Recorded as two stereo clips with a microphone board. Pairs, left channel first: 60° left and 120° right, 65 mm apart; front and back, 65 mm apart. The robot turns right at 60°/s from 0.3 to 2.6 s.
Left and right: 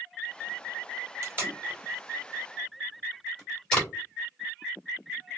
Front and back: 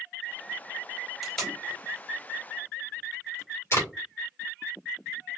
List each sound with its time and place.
1.2 s tape being pulled: 90° right, 1.8 m; by 3.9 s 5° right, 1.8 m